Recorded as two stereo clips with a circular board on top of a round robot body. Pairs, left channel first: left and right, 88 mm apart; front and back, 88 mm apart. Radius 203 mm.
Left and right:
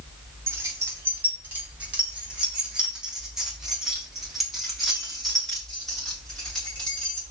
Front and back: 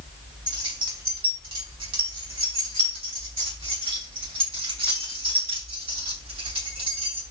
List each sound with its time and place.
0.5 s keys jangling: 150° right, 4.5 m; by 7.2 s 170° left, 8.5 m